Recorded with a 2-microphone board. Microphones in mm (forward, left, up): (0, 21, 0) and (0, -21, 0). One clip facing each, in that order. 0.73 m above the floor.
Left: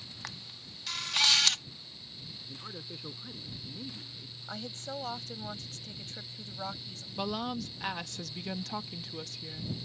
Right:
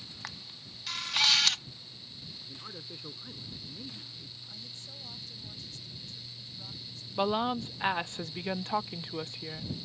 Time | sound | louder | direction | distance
0.2 | a camera shutter | right 1 dB | 5° right (ahead or behind) | ?
2.5 | a man speaking | left 2 dB | centre (ahead or behind) | ?
4.5 | a woman speaking | left 13 dB | 55° left (ahead or behind) | ?
7.2 | a woman speaking | right 6 dB | 25° right (ahead or behind) | ?